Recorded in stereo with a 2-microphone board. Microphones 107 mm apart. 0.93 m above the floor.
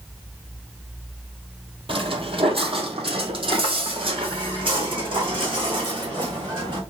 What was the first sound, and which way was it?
Footsteps, 55° right (ahead or behind).